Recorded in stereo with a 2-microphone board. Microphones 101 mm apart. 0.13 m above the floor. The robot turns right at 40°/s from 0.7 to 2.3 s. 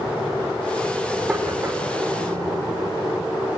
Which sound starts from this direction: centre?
Knocking, at 1.3 s.